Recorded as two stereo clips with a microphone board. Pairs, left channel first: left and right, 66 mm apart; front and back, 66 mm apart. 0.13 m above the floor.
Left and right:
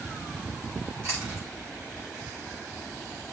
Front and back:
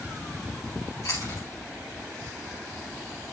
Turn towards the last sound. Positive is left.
turn(degrees=-40)